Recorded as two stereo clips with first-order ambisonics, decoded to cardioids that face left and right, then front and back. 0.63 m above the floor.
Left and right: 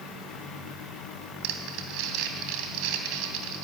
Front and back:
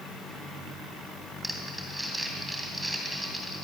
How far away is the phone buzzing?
No phone buzzing in this recording.